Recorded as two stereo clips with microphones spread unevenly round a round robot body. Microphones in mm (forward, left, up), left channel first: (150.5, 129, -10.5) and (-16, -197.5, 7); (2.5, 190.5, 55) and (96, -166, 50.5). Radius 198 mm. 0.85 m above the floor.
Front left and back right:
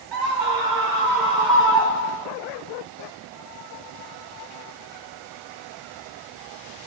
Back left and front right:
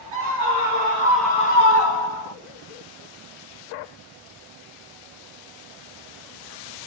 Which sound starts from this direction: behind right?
A scream, at 0.1 s.